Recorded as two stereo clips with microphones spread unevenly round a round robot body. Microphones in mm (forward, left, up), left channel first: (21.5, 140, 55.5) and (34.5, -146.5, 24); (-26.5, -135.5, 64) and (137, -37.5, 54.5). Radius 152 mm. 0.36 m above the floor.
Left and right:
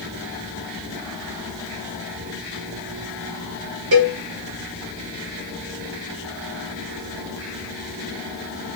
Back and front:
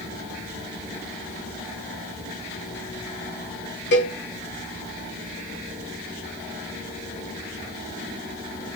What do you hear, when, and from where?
3.9 s a cowbell: 130° right, 6.5 m